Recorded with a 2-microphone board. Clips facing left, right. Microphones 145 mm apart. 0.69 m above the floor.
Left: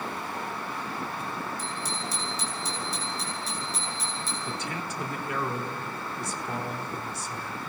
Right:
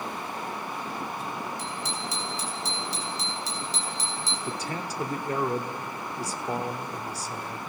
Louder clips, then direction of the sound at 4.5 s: Right 3 dB; 35° right (ahead or behind).